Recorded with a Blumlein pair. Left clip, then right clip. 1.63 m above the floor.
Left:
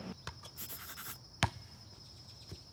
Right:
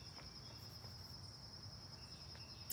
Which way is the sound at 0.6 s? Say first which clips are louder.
Left 8 dB; 50° left.